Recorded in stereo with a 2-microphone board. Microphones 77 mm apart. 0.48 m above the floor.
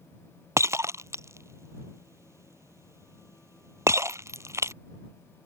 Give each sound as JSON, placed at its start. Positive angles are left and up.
{"t": 0.6, "sound": "breaking glass", "side_deg": -40}